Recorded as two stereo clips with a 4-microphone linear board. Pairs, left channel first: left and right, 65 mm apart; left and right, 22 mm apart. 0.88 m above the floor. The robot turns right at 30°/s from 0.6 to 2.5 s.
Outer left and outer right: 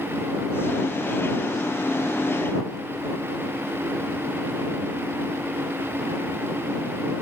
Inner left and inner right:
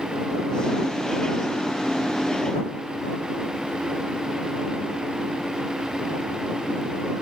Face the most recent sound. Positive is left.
No sound to turn to.